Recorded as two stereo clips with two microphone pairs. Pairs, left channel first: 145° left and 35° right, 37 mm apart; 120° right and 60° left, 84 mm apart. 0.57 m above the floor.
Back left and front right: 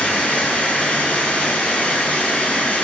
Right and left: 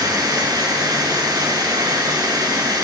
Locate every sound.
0.0 s running water: 100° left, 4.5 m